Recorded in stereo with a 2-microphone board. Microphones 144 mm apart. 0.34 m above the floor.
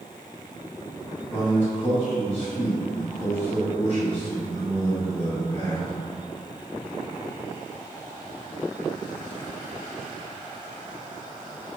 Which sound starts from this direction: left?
A man speaking, at 1.3 s.